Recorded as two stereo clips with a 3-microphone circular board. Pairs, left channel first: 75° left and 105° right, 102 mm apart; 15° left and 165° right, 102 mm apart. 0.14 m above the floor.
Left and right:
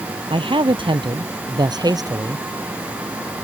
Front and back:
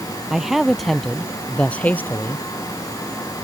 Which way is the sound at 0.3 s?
80° right.